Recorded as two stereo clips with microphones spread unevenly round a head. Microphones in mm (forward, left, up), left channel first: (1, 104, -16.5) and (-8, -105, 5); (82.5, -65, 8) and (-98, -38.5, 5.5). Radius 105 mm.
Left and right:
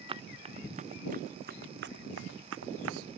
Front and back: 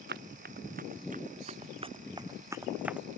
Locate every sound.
0.1 s running footsteps: 160° right; by 3.1 s 100° right